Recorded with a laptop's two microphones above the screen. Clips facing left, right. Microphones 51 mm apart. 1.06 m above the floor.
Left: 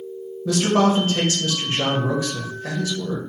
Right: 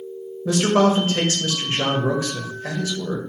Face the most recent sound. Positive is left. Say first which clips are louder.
# right 1 dB
turn(degrees=-30)  # may be behind; listen again after turning